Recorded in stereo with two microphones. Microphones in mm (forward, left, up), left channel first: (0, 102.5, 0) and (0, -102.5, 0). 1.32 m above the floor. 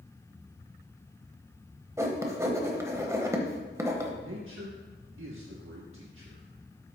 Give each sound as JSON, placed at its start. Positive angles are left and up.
{"t": 2.0, "sound": "writing", "side_deg": -15, "distance_m": 1.1}
{"t": 4.2, "sound": "a man speaking", "side_deg": -85, "distance_m": 1.2}